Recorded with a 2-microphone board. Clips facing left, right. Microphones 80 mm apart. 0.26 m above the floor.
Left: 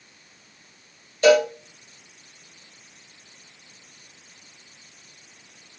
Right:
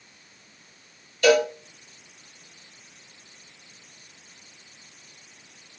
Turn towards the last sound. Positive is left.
turn(degrees=30)  # may be behind; listen again after turning